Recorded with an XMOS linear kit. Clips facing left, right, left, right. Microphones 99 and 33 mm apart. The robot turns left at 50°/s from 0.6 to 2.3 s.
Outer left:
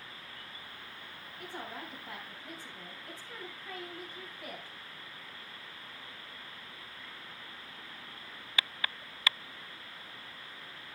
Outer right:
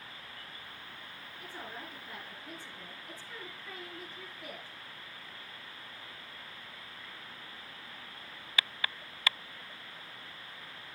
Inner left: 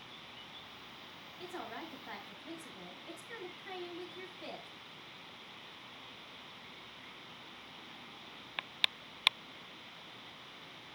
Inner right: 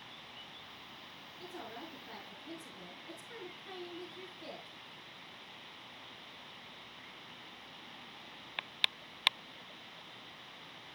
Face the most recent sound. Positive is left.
turn(degrees=75)